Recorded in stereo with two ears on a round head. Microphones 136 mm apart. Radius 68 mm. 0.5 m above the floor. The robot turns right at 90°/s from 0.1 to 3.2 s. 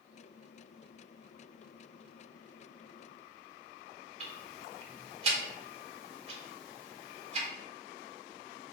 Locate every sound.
4.2 s ticking: 40° right (ahead or behind), 1.1 m